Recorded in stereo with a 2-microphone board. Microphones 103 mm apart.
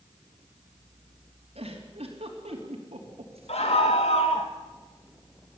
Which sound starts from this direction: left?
A scream, at 3.5 s.